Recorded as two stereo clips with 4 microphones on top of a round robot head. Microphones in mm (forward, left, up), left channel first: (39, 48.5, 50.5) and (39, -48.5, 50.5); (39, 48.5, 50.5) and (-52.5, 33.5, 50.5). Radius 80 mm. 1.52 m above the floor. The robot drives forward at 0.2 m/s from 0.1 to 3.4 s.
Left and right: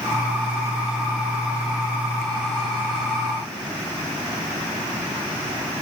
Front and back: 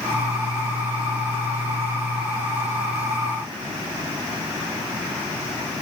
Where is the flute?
No flute in this recording.